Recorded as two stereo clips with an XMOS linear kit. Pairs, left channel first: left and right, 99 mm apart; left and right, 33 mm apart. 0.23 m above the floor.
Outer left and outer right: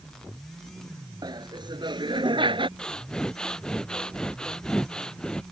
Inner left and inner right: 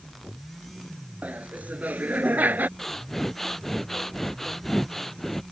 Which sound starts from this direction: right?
Laughter, at 1.2 s.